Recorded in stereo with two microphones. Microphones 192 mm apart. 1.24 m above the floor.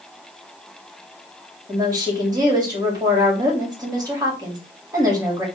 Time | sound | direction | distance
1.7 | a woman speaking | 20° right (ahead or behind) | 2.5 m